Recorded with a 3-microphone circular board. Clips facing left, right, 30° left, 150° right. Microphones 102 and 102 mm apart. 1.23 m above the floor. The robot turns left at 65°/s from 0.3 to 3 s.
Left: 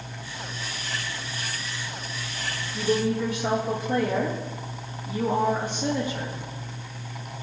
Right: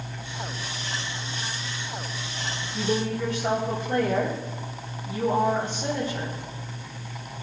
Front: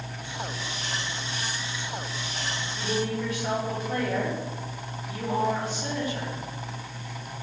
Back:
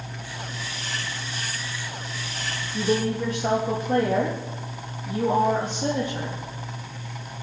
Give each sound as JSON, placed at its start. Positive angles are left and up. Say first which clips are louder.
{"t": 2.7, "sound": "a woman speaking", "louder": "left 3 dB, back 6 dB", "azimuth_deg": 180, "distance_m": 2.5}